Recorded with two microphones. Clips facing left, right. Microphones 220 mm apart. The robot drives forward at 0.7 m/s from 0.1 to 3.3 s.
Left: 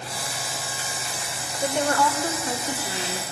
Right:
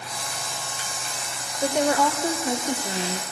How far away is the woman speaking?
About 1.4 m.